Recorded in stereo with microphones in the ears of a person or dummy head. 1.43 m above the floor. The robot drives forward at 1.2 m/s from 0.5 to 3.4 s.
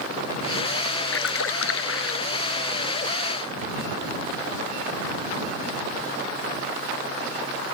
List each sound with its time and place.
1.1 s a splash: 85° left; by 2.2 s 80° left